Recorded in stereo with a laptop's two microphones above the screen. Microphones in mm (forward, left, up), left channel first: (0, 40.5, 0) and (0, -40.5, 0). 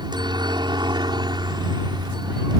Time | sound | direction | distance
0.0 | a helicopter | 60° right (ahead or behind) | ?